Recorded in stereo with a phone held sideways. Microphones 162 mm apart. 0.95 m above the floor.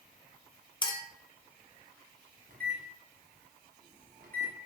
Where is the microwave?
60° right (ahead or behind), 0.8 m.